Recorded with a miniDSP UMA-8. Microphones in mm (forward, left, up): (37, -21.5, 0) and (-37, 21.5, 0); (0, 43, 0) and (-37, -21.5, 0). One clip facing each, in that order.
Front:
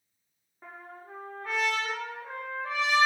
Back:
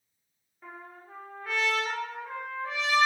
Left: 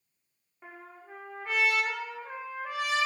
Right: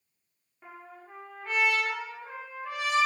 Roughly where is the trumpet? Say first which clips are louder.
Even, right 1 dB; ahead.